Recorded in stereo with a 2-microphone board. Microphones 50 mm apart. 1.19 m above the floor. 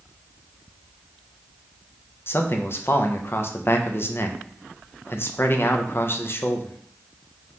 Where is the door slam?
No door slam in this recording.